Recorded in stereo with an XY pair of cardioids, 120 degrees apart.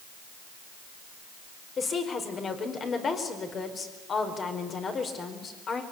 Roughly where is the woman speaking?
Ahead left.